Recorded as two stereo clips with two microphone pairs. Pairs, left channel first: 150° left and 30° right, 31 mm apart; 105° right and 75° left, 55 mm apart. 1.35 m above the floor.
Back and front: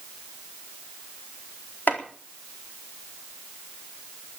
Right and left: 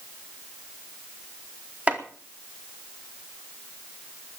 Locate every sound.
1.9 s chopping: 145° left, 4 m